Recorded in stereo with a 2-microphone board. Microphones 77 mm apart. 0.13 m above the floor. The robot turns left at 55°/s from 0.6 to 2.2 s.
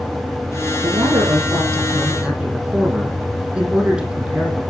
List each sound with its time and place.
0.8 s a man speaking: 95° right, 6 m; by 4.6 s 170° right, 6 m